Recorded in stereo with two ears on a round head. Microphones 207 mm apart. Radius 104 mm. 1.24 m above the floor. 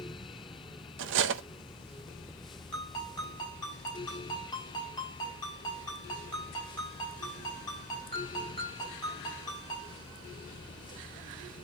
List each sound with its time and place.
1.0 s cutlery clinking: 55° right (ahead or behind), 0.6 m
2.7 s a ringtone: 15° left (ahead or behind), 5 m